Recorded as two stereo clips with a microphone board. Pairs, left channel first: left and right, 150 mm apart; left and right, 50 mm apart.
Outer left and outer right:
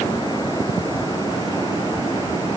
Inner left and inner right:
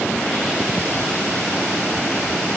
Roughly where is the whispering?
No whispering in this recording.